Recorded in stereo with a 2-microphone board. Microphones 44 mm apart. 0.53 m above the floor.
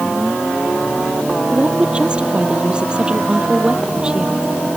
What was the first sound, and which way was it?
A woman speaking, 25° right (ahead or behind).